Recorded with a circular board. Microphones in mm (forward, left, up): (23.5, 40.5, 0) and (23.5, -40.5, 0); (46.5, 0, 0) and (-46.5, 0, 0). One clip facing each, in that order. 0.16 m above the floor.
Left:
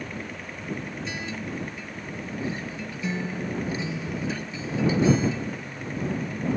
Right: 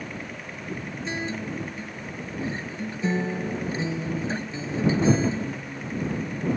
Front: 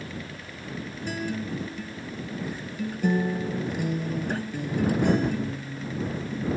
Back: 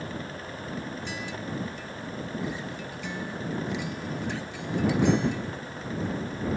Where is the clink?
I don't hear a clink.